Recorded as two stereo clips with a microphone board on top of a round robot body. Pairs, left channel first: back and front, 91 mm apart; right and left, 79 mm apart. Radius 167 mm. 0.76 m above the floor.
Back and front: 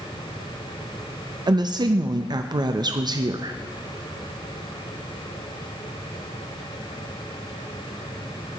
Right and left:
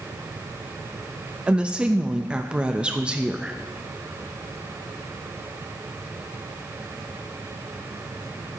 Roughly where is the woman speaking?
Ahead.